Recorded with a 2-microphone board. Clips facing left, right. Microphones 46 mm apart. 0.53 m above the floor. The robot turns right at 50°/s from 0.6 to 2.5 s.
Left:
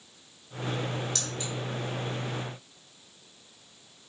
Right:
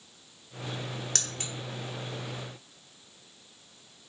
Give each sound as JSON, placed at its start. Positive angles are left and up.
{"t": 1.1, "sound": "keys jangling", "side_deg": -55, "distance_m": 1.1}